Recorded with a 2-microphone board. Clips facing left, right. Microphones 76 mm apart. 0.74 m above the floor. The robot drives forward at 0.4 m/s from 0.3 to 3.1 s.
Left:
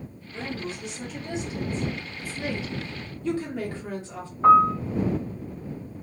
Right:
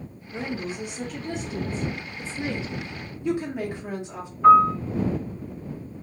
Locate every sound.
0.3 s a woman speaking: 50° right (ahead or behind), 1.0 m
2.2 s a woman speaking: 25° right (ahead or behind), 0.7 m; by 4.3 s 20° right (ahead or behind), 1.0 m
4.4 s a piano: 35° left (ahead or behind), 1.3 m